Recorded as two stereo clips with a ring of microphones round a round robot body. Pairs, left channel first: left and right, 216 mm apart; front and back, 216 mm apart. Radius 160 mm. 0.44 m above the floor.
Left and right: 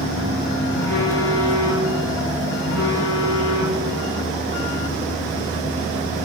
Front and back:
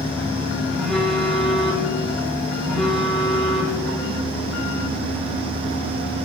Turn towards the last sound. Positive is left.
turn(degrees=90)